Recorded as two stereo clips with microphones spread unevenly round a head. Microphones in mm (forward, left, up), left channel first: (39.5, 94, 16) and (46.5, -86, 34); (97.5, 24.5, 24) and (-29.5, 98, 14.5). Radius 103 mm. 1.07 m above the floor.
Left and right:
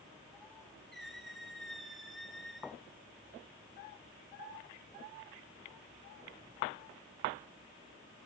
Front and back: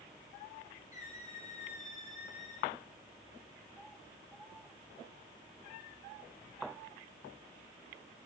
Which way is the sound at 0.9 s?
5° left.